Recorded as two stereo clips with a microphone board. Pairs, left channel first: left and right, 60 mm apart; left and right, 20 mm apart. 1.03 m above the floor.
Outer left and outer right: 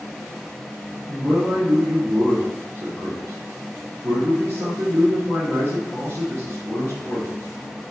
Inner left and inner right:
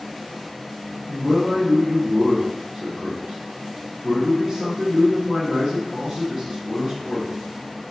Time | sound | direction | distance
1.1 | a man speaking | 35° right (ahead or behind) | 2 m